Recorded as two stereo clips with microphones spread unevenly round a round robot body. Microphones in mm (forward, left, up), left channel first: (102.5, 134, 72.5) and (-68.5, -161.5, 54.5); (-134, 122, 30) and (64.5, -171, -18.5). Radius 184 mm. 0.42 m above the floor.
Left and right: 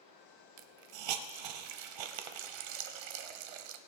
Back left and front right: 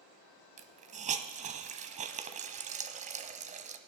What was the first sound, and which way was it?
A hiss, 130° right.